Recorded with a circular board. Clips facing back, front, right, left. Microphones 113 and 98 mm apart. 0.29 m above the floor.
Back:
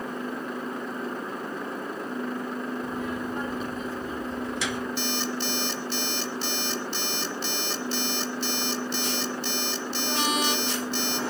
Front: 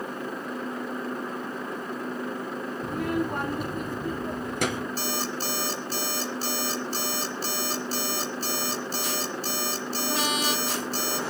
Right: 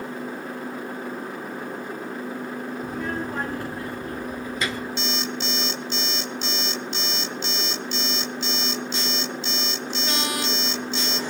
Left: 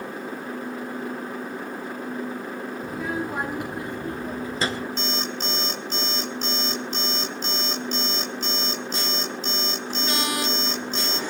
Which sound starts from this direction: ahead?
A child speaking, at 2.8 s.